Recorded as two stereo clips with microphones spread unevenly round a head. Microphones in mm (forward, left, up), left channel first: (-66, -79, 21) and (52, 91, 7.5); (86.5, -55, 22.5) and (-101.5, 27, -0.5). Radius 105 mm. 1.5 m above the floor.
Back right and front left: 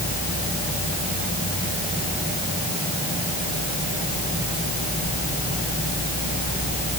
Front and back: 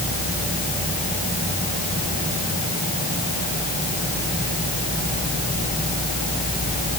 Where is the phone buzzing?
No phone buzzing in this recording.